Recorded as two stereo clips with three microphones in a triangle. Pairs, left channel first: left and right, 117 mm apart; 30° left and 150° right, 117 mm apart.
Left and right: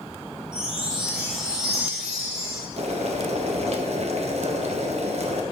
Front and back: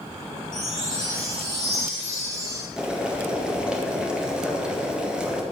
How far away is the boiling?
About 1.2 m.